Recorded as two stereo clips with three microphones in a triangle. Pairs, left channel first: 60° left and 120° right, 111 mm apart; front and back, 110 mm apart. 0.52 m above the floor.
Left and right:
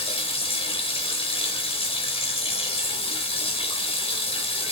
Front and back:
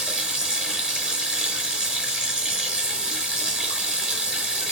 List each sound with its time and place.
0.0 s running water: 95° left, 4.5 m